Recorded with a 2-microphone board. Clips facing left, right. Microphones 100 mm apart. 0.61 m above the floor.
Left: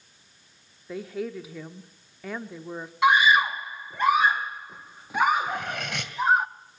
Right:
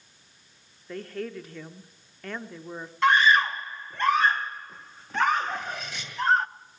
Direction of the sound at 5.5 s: 65° left (ahead or behind).